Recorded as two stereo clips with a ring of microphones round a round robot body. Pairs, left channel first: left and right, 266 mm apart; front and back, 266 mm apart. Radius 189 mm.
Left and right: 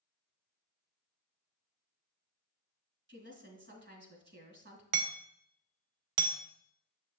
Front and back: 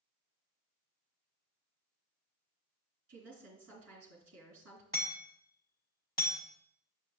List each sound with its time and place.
3.1 s a woman speaking: 135° right, 2.5 m
4.9 s hammering: 80° right, 0.8 m